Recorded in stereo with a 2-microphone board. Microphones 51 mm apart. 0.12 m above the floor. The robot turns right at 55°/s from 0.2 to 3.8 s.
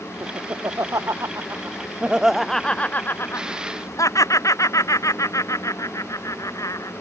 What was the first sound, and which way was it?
Laughter, 60° right (ahead or behind).